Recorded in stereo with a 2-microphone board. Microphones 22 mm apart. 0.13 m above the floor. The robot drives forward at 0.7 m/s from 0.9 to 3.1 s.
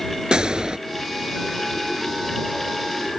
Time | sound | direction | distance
0.3 | a gunshot | 40° right (ahead or behind) | ?